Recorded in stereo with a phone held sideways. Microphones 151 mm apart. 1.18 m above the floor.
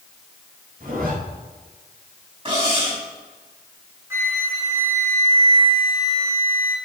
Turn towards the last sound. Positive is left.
turn(degrees=-15)  # may be behind; listen again after turning